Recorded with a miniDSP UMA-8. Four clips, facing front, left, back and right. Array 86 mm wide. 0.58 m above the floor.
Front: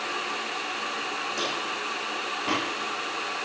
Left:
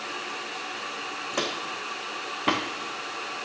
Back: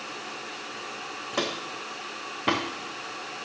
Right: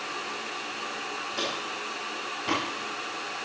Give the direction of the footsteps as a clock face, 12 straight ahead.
8 o'clock.